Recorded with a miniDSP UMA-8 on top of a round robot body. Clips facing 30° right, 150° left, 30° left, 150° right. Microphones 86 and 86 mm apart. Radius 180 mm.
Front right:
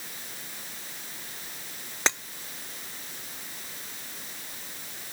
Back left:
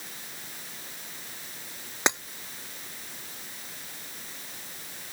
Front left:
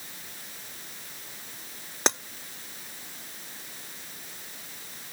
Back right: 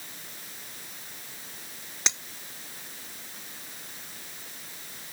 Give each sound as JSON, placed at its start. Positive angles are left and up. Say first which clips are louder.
{"t": 2.1, "sound": "breaking glass", "louder": "back left 2 dB, front left 8 dB", "azimuth_deg": 75}